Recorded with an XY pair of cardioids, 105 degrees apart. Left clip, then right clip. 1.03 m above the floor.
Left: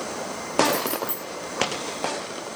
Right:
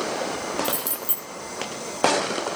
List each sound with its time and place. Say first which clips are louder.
0.6 s keys jangling: left 4 dB; 40° right, 4.5 m